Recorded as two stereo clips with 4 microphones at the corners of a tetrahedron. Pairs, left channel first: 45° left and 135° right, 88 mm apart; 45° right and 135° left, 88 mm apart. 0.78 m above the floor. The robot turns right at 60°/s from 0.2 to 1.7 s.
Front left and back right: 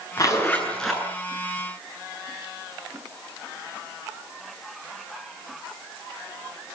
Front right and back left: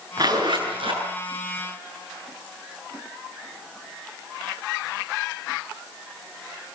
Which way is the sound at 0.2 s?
95° left.